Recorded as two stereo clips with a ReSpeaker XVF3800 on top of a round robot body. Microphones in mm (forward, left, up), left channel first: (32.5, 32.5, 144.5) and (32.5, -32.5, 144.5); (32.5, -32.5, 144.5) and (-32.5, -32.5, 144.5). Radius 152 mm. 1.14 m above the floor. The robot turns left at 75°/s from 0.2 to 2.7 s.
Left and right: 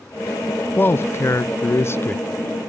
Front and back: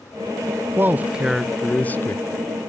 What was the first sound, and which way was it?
A man speaking, 140° left.